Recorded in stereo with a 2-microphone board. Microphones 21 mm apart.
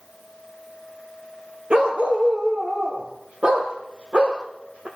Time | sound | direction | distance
1.7 | a dog barking | 75° right (ahead or behind) | 4 m